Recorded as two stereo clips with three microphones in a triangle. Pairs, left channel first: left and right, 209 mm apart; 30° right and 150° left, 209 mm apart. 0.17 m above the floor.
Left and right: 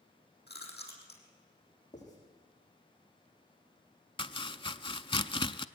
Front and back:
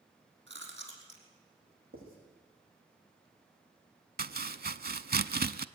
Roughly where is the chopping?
Behind left.